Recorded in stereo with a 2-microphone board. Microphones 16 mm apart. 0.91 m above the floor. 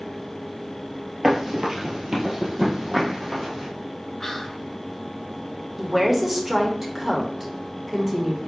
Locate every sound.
1.2 s running footsteps: 40° right (ahead or behind), 1.2 m; by 3.7 s 45° right (ahead or behind), 2.5 m
4.2 s whispering: 30° left (ahead or behind), 1.0 m
5.8 s a woman speaking: 25° right (ahead or behind), 1.1 m